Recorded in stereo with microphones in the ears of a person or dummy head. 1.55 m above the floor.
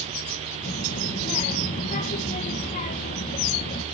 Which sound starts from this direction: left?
A child speaking, at 0.6 s.